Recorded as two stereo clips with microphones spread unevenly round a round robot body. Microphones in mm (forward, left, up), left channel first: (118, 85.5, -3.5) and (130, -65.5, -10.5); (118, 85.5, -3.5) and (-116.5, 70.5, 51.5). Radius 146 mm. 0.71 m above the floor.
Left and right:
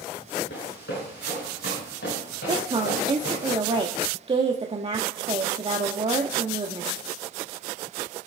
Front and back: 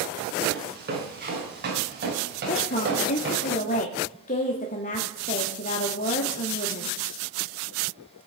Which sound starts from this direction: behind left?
Running footsteps, at 0.5 s.